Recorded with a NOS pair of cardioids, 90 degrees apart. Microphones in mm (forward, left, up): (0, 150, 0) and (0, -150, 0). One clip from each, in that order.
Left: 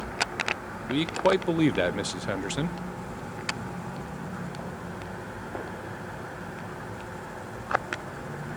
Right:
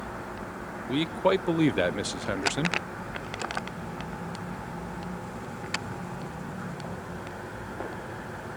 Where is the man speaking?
Straight ahead, 0.7 m.